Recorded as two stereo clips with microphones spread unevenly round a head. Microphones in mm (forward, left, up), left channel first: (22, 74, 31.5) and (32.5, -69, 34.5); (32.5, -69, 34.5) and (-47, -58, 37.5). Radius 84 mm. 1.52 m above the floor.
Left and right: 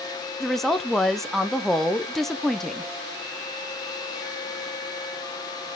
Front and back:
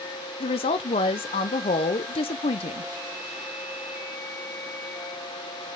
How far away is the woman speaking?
About 0.6 m.